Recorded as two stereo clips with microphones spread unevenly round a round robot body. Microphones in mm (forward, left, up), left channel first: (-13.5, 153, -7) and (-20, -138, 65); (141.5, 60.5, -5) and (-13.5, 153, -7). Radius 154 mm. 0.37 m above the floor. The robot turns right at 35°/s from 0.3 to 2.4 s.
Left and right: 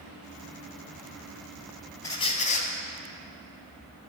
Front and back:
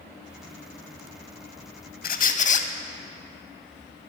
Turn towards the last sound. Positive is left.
turn(degrees=20)